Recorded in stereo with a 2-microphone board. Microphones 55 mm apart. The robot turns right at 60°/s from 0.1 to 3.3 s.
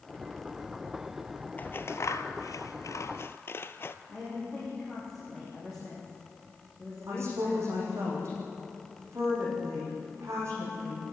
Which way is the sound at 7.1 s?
50° right (ahead or behind).